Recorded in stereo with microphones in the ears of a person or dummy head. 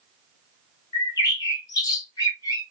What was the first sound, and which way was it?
A bird, 20° left (ahead or behind).